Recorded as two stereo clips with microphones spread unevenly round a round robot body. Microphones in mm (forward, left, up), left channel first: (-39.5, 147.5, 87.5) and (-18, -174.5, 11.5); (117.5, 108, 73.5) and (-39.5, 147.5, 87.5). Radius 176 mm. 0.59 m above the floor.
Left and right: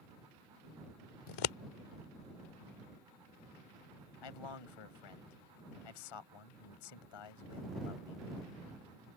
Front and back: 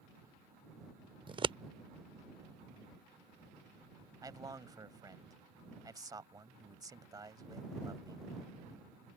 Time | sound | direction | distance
1.3 | scissors | 105° left | ?
4.2 | a man speaking | 100° left | ?